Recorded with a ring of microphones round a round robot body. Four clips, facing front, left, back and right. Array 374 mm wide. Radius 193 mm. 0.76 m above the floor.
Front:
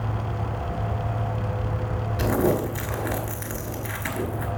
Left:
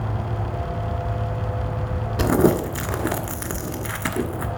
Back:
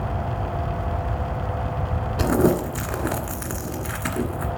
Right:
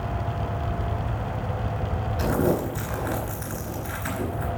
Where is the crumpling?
120° left, 1.4 m.